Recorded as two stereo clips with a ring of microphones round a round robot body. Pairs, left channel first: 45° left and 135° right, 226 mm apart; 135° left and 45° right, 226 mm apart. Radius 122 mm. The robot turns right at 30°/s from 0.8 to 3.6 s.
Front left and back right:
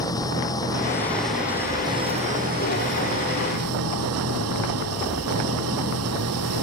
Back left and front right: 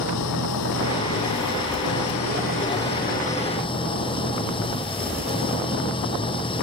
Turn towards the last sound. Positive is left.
turn(degrees=-155)